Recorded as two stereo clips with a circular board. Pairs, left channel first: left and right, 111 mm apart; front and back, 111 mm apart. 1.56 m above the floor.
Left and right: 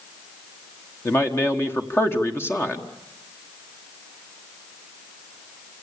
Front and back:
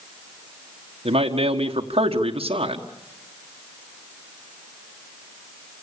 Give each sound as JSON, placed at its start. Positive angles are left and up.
{"t": 1.1, "sound": "a man speaking", "azimuth_deg": 155, "distance_m": 1.5}